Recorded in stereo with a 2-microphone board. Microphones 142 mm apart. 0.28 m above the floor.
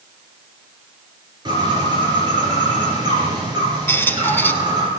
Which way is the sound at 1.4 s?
30° right (ahead or behind).